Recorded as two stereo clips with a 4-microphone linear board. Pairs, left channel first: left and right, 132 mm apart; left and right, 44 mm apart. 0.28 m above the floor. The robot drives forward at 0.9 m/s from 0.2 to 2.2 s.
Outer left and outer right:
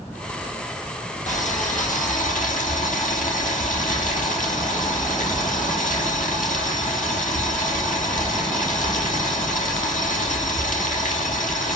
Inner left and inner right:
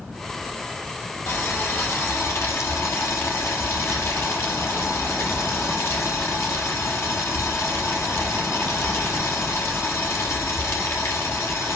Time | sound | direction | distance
1.3 | boiling | 70° left (ahead or behind) | 3.5 m